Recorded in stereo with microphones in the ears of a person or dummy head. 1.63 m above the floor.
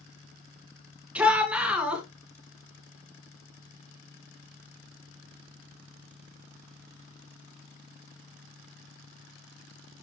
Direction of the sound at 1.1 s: 5° right (ahead or behind).